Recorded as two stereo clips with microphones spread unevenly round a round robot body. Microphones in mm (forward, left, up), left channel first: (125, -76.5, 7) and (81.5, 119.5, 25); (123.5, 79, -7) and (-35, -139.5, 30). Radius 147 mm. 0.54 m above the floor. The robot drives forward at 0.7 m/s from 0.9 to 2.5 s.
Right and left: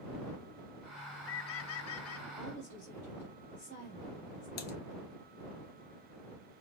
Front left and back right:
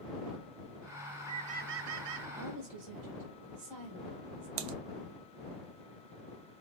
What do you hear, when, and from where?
1.0 s a bird: 35° right, 0.8 m; by 2.3 s 120° right, 0.5 m
2.4 s a woman speaking: 150° right, 1.8 m
4.6 s typing on a keyboard: 110° right, 0.5 m